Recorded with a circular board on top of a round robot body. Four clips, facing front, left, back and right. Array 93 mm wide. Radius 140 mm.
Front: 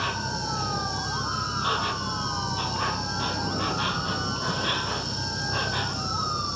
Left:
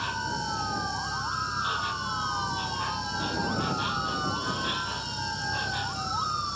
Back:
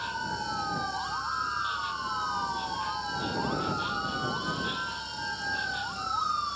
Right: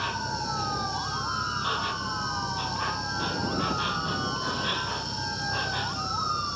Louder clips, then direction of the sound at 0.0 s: Even, front 3 dB; 15° right.